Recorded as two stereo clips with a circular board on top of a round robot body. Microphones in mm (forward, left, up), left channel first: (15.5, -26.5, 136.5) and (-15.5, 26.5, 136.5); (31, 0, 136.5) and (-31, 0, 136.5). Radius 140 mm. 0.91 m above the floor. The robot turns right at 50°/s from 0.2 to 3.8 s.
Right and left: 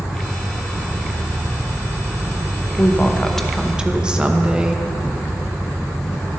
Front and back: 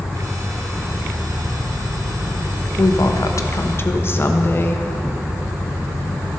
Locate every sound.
2.8 s a woman speaking: 5° right, 1.1 m; by 4.8 s 45° left, 1.1 m